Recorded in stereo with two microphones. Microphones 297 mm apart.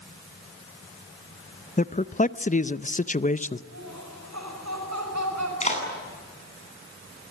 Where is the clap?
25° left (ahead or behind), 8.5 m.